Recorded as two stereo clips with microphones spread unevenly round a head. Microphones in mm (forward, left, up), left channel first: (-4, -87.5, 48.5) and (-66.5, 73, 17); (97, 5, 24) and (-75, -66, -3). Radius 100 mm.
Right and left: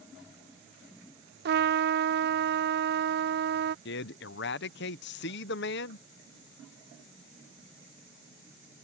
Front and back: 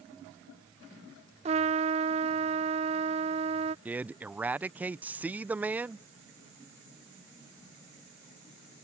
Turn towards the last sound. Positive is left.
turn(degrees=-70)